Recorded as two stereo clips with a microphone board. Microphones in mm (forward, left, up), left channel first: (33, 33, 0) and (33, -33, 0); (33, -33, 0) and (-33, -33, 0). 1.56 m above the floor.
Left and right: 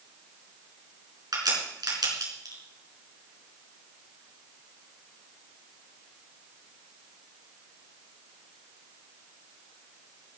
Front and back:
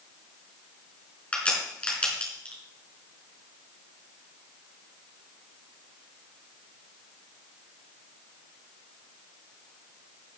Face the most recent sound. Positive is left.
turn(degrees=-70)